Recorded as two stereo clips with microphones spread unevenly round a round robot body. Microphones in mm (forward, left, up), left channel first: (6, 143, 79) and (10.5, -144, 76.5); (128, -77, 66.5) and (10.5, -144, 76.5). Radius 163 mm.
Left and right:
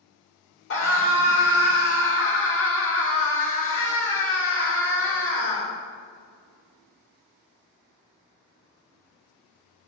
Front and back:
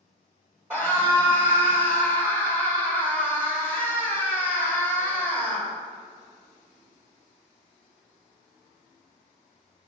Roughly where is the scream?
Behind left.